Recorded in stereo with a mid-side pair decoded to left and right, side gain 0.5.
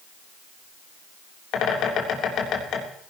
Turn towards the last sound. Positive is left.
turn(degrees=65)